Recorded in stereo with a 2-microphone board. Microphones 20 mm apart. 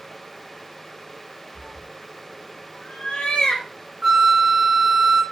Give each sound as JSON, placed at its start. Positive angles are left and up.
{"t": 1.6, "sound": "a cat meowing", "side_deg": 55, "distance_m": 1.4}
{"t": 4.0, "sound": "a flute", "side_deg": -25, "distance_m": 0.7}